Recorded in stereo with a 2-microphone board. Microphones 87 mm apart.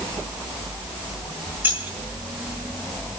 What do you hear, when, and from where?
1.6 s keys jangling: 20° right (ahead or behind), 4 m